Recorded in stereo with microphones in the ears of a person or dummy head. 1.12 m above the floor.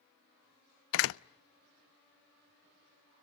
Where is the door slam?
65° left (ahead or behind), 0.6 m.